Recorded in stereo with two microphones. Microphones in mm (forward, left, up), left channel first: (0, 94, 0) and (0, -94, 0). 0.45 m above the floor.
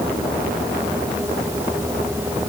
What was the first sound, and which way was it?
Only background noise.